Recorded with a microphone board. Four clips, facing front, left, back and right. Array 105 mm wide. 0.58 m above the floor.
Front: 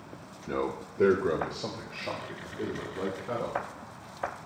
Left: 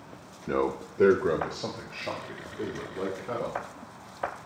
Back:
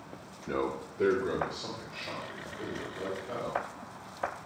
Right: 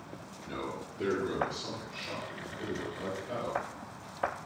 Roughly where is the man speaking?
Left.